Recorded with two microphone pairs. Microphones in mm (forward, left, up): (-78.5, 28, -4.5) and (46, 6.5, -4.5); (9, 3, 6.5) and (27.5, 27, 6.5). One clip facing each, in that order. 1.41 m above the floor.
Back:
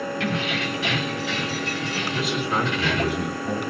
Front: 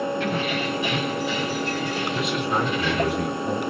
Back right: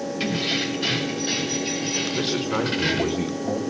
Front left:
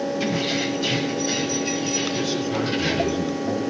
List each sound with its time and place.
0.2 s keys jangling: 175° left, 6 m; by 3.1 s 165° left, 4.5 m
2.1 s a man speaking: 100° right, 4 m